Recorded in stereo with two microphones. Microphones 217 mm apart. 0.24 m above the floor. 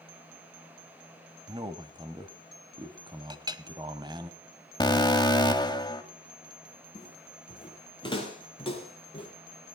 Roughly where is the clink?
Centre.